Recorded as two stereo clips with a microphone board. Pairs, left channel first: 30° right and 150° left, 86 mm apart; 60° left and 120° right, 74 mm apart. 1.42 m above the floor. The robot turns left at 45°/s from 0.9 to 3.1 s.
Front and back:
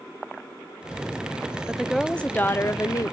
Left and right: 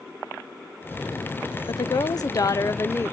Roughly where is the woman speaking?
Left.